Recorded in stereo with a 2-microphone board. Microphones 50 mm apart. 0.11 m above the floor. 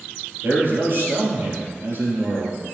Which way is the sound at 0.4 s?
50° right (ahead or behind).